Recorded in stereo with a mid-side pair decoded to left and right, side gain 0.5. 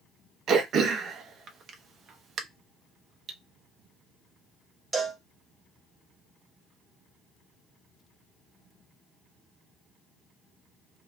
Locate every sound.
0.5 s throat clearing: 55° right, 0.7 m
3.3 s cutlery clinking: 45° right, 0.8 m
4.9 s a cowbell: 30° right, 1.2 m